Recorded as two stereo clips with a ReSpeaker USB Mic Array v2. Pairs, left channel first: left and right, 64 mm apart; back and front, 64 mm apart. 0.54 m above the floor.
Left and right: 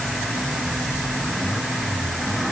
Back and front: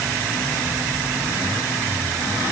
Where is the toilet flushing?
No toilet flushing in this recording.